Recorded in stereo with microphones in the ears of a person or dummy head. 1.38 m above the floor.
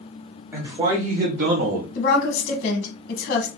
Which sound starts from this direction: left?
A woman speaking, at 1.9 s.